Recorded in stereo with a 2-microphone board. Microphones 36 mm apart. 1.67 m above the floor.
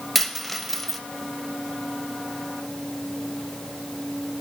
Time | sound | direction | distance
0.1 | a dropped coin | 5° left (ahead or behind) | 0.9 m